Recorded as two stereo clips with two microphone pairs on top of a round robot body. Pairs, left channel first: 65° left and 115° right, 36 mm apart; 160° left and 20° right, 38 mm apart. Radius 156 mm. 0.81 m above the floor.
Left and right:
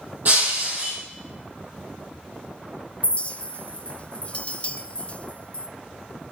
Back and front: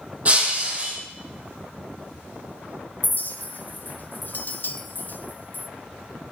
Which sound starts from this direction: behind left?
A clink, at 3.0 s.